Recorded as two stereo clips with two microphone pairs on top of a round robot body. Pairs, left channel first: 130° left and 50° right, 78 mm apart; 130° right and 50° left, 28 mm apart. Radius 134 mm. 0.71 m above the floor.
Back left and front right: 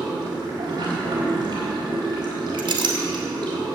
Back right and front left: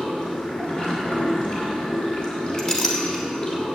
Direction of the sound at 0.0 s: 85° right.